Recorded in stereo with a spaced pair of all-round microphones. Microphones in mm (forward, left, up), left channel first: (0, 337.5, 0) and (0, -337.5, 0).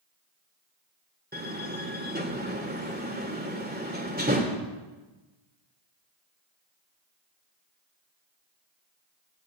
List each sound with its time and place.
1.3 s a door slam: 15° right (ahead or behind), 3 m